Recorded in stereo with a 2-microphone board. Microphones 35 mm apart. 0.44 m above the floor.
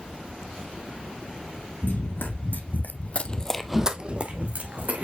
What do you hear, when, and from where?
1.8 s running footsteps: 75° left (ahead or behind), 1.6 m; by 5.0 s 55° right (ahead or behind), 1.6 m